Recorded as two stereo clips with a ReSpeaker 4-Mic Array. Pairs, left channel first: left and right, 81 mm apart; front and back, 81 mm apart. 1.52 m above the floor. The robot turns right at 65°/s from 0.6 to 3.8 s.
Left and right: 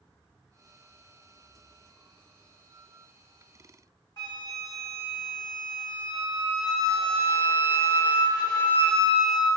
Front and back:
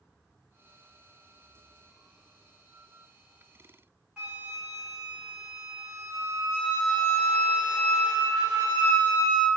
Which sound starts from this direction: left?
A flute, at 4.2 s.